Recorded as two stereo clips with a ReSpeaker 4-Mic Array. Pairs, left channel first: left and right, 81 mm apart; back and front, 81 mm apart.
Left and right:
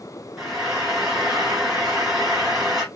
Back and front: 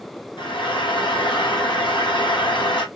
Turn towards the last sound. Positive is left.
turn(degrees=-175)